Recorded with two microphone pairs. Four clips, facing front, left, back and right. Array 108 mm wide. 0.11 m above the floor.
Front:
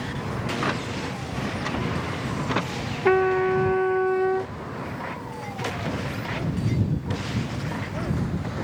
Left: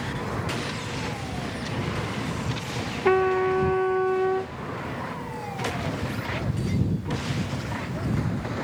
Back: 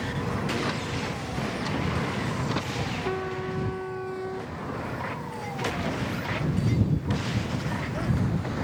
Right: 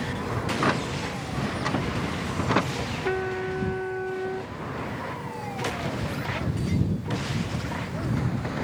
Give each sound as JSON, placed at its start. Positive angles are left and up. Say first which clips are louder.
{"t": 0.5, "sound": "a drawer", "louder": "right 6 dB, front 2 dB", "azimuth_deg": -70}
{"t": 3.0, "sound": "a trumpet", "louder": "left 9 dB, front 15 dB", "azimuth_deg": 30}